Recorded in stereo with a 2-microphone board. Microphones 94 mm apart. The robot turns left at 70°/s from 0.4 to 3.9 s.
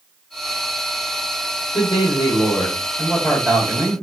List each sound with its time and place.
1.7 s a man speaking: 115° left, 1.8 m; by 4.0 s 35° right, 1.8 m